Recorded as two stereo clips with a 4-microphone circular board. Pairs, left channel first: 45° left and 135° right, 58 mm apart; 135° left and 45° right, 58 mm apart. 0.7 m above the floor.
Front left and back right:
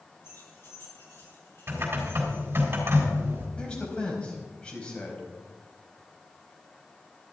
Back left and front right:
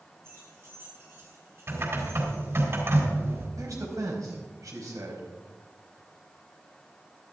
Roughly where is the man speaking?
Ahead right.